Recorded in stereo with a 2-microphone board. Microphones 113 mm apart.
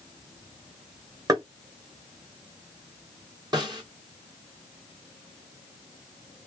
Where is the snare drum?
35° right (ahead or behind), 1.5 m.